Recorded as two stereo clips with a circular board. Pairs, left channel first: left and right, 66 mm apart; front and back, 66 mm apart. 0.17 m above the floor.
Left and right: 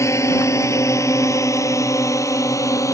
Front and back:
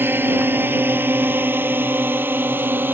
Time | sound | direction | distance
0.0 | a drone | 125° left | ?